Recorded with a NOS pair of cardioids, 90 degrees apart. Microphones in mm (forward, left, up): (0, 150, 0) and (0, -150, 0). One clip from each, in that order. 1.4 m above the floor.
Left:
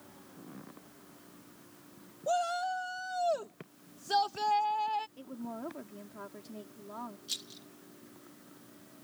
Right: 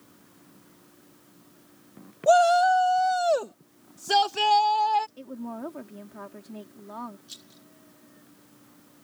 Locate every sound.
2.3 s a shout: 60° right; by 5.1 s 70° right
5.2 s a woman speaking: 35° right
7.3 s a rattle: 50° left